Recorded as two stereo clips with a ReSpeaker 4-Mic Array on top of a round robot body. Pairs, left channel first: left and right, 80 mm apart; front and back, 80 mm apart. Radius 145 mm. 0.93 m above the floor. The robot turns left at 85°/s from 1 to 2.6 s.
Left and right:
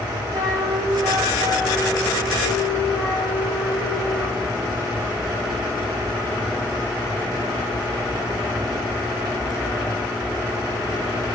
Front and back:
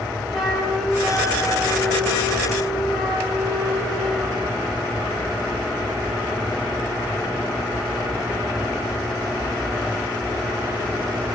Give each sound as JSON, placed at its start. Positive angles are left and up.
{"t": 0.3, "sound": "a flute", "azimuth_deg": -90, "distance_m": 3.5}